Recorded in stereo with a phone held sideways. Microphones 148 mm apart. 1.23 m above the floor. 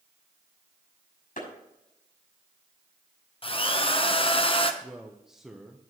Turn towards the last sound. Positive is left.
turn(degrees=-5)  # may be behind; listen again after turning